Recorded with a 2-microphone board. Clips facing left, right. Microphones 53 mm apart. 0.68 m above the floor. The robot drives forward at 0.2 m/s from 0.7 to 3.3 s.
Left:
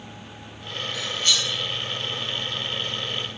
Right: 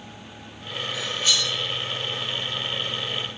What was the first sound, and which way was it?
Cutlery clinking, 10° right (ahead or behind).